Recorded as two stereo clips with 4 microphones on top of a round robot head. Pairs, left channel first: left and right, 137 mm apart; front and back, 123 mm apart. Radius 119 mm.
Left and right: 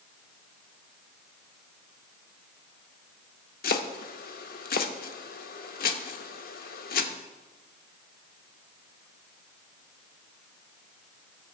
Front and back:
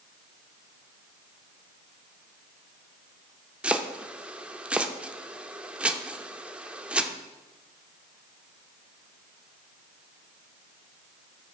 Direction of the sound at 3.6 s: 100° left.